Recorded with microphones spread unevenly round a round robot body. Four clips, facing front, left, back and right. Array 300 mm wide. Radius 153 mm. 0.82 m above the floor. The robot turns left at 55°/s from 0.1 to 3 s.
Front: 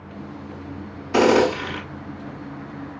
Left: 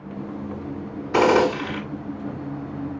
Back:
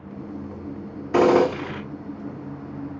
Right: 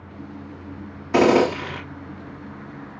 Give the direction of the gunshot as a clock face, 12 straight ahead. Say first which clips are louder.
Right 1 dB, even; 4 o'clock.